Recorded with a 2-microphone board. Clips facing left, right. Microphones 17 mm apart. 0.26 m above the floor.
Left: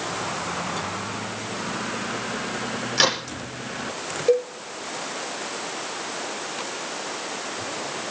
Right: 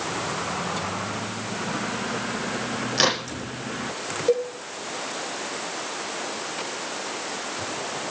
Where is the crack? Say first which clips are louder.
Left 1 dB; centre (ahead or behind), 9 m.